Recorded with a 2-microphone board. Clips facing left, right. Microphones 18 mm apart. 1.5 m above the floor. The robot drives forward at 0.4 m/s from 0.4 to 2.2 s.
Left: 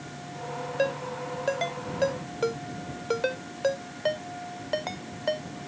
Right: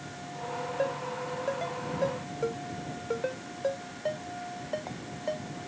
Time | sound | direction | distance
0.8 | a ringtone | 60° left (ahead or behind) | ?